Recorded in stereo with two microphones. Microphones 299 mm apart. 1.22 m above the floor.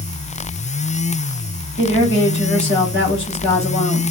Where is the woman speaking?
40° left (ahead or behind), 3 m.